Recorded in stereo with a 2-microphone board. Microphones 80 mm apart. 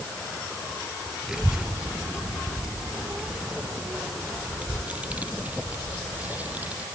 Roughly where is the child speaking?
Centre.